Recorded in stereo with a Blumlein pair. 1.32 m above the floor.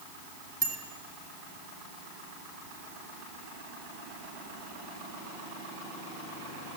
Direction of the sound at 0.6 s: 35° right.